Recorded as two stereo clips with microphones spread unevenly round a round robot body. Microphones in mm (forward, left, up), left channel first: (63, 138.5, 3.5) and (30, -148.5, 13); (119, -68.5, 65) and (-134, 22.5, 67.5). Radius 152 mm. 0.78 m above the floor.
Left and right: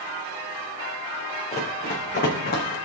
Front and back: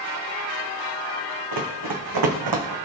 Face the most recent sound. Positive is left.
turn(degrees=140)